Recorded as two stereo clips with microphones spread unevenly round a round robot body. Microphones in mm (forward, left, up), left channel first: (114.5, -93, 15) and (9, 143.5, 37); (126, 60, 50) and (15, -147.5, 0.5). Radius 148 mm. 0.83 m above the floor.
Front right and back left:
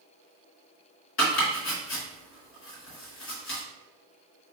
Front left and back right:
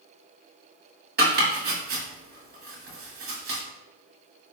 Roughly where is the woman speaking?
I don't hear a woman speaking.